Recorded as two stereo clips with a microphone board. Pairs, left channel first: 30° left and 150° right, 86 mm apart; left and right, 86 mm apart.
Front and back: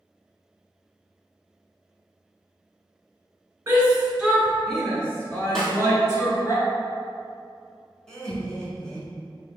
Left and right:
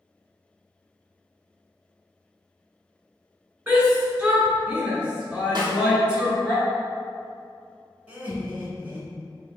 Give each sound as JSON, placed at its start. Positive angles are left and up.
{"t": 3.7, "sound": "a shout", "azimuth_deg": -150, "distance_m": 1.2}
{"t": 5.5, "sound": "a snare drum", "azimuth_deg": -55, "distance_m": 1.1}
{"t": 8.1, "sound": "laughter", "azimuth_deg": -45, "distance_m": 1.1}